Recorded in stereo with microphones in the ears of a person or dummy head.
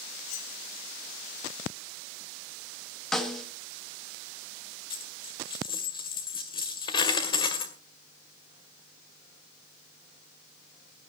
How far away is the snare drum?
About 1.5 m.